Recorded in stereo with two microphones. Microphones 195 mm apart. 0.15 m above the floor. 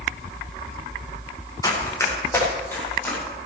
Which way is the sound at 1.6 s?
15° left (ahead or behind).